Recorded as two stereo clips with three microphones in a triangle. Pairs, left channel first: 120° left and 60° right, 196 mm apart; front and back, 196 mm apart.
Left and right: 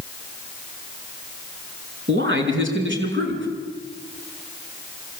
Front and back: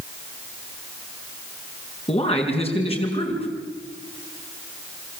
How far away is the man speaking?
About 5 m.